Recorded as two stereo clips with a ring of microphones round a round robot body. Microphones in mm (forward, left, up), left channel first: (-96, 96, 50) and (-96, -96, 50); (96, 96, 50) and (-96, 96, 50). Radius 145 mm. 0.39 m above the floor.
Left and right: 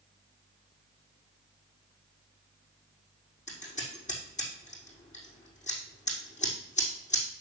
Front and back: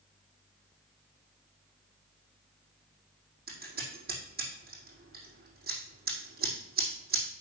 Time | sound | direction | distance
3.5 | scissors | 140° left | 4.5 m